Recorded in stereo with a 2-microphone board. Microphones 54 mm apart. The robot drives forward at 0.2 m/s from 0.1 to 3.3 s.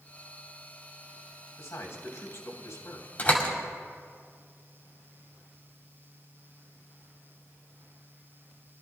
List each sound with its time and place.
1.6 s a man speaking: 65° left (ahead or behind), 3 m
3.2 s a door slam: 40° left (ahead or behind), 2.5 m